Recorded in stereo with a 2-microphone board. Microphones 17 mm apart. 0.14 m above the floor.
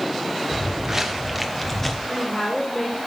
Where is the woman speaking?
15° left (ahead or behind), 3 m.